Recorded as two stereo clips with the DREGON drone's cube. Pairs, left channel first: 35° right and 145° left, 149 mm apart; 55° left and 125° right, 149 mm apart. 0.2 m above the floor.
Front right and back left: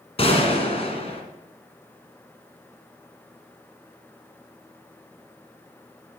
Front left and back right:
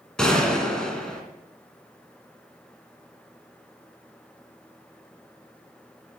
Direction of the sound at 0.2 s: 25° right.